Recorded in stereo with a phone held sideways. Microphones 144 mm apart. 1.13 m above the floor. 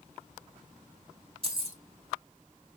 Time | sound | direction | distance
1.4 | keys jangling | 40° right (ahead or behind) | 1.5 m